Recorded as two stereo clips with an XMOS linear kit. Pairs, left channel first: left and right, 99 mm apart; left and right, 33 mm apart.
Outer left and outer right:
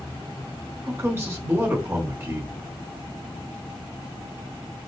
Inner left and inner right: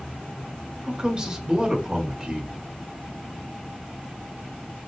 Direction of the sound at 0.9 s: 25° right (ahead or behind).